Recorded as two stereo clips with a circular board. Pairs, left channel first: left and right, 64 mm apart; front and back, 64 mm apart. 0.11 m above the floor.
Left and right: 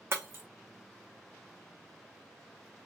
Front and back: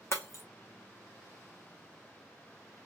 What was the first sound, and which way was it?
Breaking glass, 40° right.